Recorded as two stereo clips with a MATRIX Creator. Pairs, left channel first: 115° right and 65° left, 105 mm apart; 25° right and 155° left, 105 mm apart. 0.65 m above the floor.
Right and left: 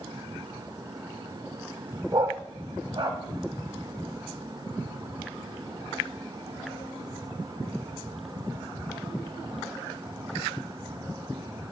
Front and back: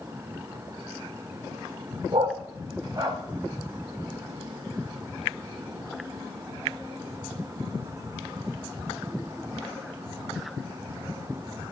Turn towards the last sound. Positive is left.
turn(degrees=105)